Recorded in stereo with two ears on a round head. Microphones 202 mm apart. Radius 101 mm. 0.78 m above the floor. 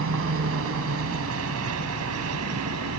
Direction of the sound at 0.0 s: 65° right (ahead or behind).